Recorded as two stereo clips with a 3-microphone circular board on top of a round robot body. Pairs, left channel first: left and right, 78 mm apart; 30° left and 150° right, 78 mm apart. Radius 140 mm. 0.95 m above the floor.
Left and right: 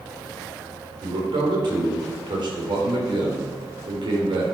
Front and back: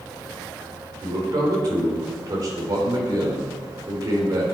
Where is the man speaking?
110° right, 4 m.